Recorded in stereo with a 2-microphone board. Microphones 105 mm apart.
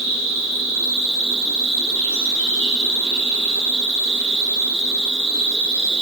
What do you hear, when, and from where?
0.0 s an insect: 55° right (ahead or behind), 0.8 m